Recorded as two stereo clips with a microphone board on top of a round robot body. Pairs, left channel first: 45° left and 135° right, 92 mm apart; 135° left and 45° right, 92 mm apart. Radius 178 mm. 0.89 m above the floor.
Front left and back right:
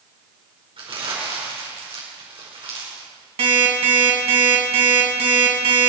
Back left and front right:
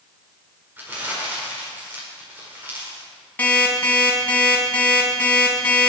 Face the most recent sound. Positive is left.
turn(degrees=-150)